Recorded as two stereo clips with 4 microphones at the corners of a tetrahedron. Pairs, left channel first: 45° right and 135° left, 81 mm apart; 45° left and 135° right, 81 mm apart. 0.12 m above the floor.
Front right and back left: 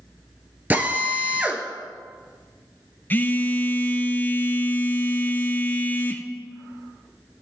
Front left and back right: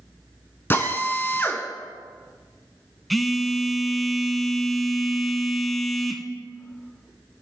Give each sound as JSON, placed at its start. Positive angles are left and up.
{"t": 0.7, "sound": "a drill", "azimuth_deg": 85, "distance_m": 0.9}
{"t": 3.1, "sound": "a phone buzzing", "azimuth_deg": -45, "distance_m": 0.5}